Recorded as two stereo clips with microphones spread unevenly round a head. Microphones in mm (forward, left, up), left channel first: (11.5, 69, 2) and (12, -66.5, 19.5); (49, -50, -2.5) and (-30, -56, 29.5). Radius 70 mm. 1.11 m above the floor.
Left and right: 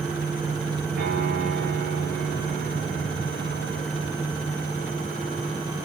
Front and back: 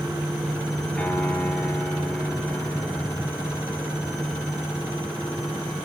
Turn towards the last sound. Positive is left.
turn(degrees=-70)